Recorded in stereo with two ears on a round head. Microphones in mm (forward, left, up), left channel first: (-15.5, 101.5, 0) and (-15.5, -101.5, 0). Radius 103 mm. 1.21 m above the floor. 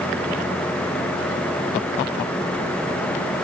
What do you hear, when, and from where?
Only background noise.